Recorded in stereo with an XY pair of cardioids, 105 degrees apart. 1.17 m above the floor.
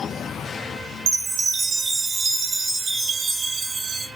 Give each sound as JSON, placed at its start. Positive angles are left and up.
{"t": 1.1, "sound": "a chime", "azimuth_deg": -60, "distance_m": 0.5}